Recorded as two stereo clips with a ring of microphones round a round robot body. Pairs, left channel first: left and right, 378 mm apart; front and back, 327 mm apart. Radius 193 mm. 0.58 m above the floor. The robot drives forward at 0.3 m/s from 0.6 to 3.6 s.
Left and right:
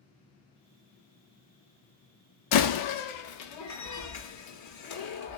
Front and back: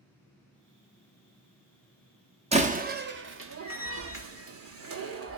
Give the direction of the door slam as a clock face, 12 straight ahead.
8 o'clock.